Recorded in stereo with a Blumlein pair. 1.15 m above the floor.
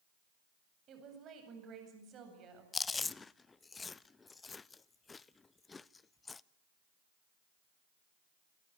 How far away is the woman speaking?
About 8.5 m.